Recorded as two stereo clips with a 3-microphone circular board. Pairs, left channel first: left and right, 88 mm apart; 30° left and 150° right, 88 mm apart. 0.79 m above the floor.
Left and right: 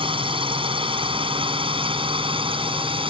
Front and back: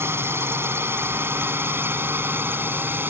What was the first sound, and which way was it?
A drone, 90° right.